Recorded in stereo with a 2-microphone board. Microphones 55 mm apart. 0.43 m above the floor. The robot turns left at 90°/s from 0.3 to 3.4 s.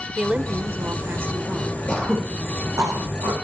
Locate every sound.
0.2 s a woman speaking: 35° right, 1.6 m; by 1.8 s 165° right, 1.6 m
1.9 s throat clearing: 25° left (ahead or behind), 5.5 m; by 3.3 s 70° right (ahead or behind), 5.5 m